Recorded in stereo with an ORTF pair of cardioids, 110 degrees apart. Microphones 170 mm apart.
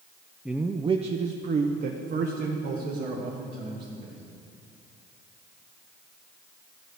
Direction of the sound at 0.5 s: 5° right.